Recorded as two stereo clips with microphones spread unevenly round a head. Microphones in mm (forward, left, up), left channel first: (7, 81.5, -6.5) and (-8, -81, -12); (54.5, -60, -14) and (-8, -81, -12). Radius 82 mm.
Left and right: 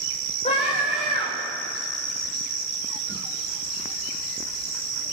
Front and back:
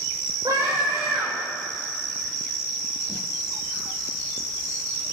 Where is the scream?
140° left, 7 m.